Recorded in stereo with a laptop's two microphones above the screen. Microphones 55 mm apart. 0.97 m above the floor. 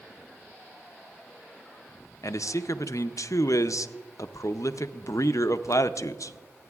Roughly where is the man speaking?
Left.